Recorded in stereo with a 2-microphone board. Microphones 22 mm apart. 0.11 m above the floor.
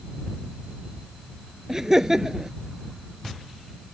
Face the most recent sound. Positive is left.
turn(degrees=-20)  # may be behind; listen again after turning